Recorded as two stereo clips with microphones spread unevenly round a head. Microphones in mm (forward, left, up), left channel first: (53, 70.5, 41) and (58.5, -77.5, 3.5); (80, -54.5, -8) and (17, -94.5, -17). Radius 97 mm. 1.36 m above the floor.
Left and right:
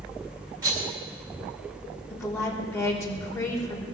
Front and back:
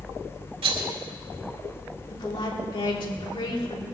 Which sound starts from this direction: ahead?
A woman speaking, at 2.1 s.